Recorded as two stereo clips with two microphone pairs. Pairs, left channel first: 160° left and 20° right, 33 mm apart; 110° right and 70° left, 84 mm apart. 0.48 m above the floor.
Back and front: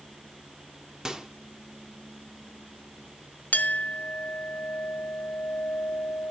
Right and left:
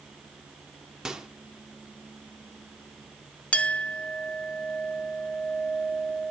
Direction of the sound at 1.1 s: Straight ahead.